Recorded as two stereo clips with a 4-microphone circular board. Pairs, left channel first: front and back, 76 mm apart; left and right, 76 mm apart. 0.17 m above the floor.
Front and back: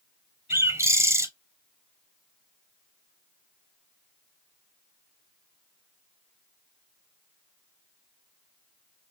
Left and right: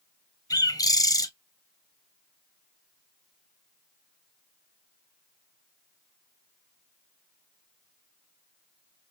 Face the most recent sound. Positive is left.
turn(degrees=125)